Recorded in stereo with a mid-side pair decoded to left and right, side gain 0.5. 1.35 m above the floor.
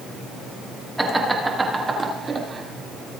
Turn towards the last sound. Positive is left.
turn(degrees=-35)